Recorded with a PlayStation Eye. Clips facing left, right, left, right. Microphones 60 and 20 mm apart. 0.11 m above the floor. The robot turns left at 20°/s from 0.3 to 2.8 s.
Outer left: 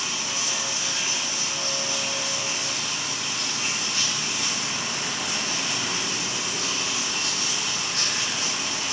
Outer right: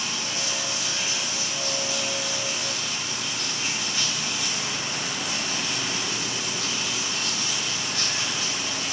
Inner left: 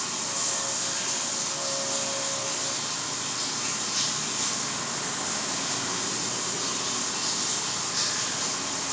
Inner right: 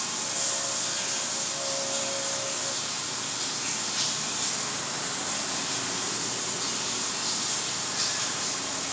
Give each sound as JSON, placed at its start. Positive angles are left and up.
{"t": 0.0, "sound": "running water", "azimuth_deg": 165, "distance_m": 3.5}